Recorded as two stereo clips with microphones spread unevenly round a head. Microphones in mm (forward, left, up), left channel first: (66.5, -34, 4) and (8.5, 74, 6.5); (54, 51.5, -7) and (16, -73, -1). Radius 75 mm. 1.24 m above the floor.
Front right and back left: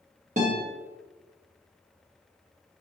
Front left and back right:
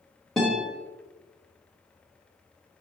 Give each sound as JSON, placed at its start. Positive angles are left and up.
{"t": 0.4, "sound": "a guitar", "azimuth_deg": 160, "distance_m": 1.3}